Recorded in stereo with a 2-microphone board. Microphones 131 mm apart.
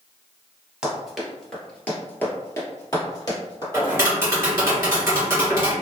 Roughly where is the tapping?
Centre.